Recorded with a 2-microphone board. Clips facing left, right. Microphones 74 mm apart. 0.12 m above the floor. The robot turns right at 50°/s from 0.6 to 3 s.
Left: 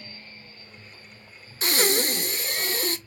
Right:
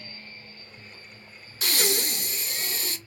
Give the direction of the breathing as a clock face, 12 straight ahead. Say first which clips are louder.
Left 4 dB; 11 o'clock.